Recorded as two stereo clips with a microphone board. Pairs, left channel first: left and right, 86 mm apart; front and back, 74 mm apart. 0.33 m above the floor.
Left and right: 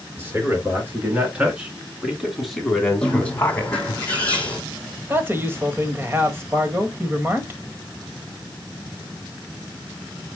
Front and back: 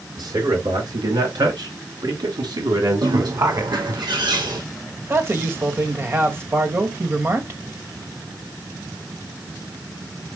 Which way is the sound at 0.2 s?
155° right.